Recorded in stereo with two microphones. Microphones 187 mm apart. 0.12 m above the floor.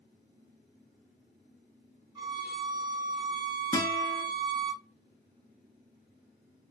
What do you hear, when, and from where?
2.1 s a violin: 25° right (ahead or behind), 1.0 m
3.7 s a guitar: 20° left (ahead or behind), 0.6 m